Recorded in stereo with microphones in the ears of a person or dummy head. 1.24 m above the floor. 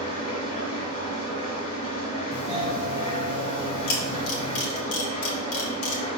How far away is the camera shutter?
About 2 m.